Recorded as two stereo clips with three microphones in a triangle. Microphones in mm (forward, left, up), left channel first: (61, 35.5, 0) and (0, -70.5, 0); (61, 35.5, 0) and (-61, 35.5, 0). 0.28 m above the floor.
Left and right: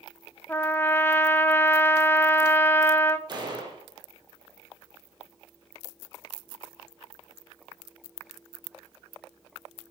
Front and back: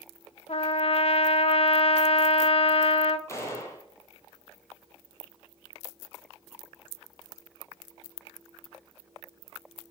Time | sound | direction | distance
0.5 | a trumpet | 10° right | 0.6 m
3.3 | a gunshot | 65° right | 2 m